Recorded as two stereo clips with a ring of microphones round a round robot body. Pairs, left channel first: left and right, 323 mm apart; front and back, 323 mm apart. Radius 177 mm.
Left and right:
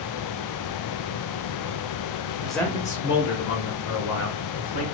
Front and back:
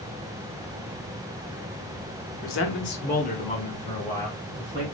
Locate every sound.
2.4 s a man speaking: 5° right, 1.1 m; by 4.8 s 90° left, 2.5 m